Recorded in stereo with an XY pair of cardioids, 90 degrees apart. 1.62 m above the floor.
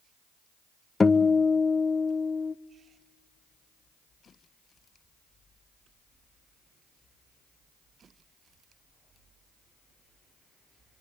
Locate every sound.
1.0 s a guitar: 30° left, 0.8 m